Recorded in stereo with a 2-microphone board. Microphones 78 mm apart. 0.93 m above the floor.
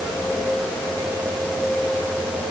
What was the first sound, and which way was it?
Only background noise.